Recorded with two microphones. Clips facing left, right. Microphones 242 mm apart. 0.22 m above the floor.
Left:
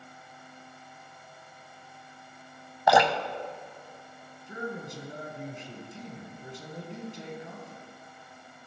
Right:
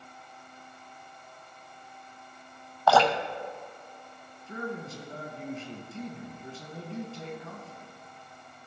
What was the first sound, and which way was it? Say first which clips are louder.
Dripping: even; 15° left (ahead or behind).